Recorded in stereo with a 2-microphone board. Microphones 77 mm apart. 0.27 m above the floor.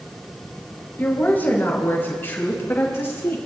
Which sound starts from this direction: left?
A woman speaking, at 1.0 s.